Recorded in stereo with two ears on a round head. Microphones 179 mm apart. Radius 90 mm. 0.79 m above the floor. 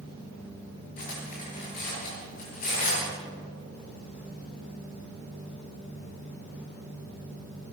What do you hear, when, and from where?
1.0 s cutlery clinking: 40° left (ahead or behind), 7.5 m